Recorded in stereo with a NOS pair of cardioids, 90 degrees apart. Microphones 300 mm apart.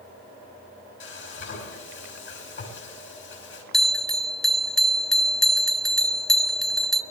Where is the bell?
Straight ahead, 0.6 m.